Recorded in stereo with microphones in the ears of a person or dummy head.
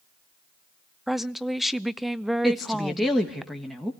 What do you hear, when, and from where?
1.1 s a woman speaking: centre (ahead or behind), 0.7 m
2.4 s a woman speaking: centre (ahead or behind), 1.8 m